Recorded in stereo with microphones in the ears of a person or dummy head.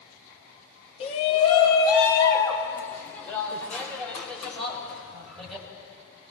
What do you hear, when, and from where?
1.0 s a shout: 35° left (ahead or behind), 2.5 m; by 5.6 s centre (ahead or behind), 8 m